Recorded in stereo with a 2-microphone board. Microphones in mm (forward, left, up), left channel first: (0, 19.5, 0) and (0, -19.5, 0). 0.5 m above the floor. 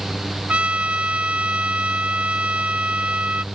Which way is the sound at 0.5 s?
40° right (ahead or behind).